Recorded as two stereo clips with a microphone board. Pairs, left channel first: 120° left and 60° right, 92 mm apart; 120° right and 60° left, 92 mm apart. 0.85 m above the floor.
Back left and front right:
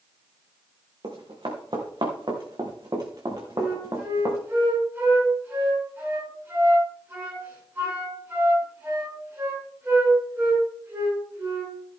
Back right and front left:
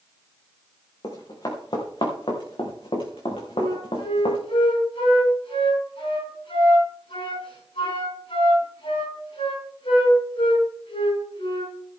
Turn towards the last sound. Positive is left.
turn(degrees=-125)